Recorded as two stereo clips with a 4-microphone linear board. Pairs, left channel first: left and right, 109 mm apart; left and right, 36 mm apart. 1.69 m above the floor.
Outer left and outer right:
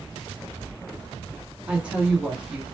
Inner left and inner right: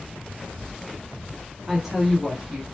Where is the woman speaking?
10° right (ahead or behind), 0.6 m.